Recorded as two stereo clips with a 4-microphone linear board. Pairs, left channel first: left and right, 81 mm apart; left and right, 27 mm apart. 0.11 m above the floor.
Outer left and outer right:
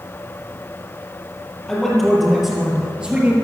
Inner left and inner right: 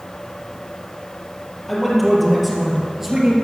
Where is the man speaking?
5° left (ahead or behind), 3 m; by 3.3 s 15° right (ahead or behind), 2 m.